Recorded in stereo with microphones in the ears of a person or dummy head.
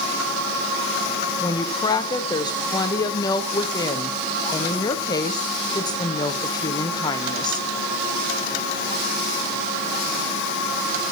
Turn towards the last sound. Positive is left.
turn(degrees=25)  # may be behind; listen again after turning